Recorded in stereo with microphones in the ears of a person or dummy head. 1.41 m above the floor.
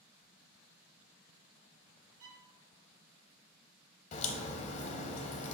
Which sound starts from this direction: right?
A violin, at 2.2 s.